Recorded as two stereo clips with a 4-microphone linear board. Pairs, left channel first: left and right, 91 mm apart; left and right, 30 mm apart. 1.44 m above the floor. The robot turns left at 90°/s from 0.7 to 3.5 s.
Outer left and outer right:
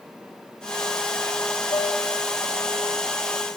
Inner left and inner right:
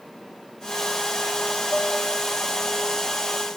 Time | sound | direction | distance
1.7 | dishes clattering | 70° left (ahead or behind) | 1.7 m